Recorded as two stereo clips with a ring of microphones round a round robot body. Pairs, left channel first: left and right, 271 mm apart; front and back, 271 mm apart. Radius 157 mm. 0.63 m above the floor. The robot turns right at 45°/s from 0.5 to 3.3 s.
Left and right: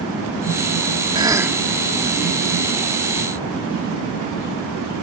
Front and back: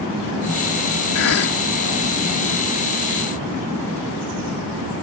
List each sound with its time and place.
1.1 s a cough: 20° right; by 1.6 s 5° right